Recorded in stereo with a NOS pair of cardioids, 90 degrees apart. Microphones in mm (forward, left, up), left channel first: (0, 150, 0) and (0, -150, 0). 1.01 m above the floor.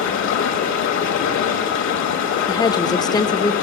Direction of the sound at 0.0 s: 65° left.